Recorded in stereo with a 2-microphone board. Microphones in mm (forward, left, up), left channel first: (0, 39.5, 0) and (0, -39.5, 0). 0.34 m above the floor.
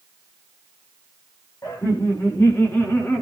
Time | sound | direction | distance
1.6 | laughter | 45° left (ahead or behind) | 1.9 m